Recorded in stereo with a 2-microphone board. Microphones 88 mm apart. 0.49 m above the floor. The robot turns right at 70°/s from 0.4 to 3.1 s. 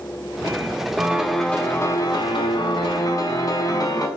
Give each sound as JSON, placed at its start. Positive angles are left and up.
{"t": 1.0, "sound": "a piano", "azimuth_deg": -20, "distance_m": 0.5}